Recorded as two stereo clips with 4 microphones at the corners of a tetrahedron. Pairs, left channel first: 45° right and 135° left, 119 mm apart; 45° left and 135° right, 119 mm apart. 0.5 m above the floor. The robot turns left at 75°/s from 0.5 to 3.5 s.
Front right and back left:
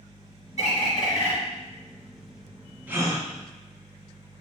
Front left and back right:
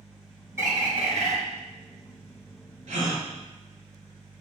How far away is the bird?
About 2 m.